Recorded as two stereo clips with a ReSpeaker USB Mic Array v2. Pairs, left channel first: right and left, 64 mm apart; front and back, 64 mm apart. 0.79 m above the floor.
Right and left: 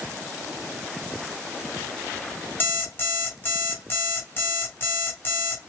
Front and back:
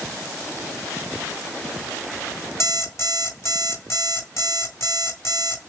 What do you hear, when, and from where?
2.6 s an alarm clock: 35° right, 1.5 m